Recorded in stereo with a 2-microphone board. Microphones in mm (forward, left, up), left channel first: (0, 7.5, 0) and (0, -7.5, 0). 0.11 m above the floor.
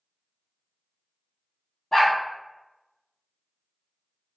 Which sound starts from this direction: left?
A dog barking, at 1.9 s.